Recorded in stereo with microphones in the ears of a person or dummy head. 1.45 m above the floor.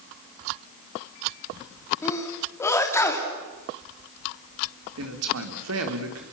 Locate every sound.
2.0 s a sneeze: 15° left (ahead or behind), 3 m
5.0 s a man speaking: 80° right, 4 m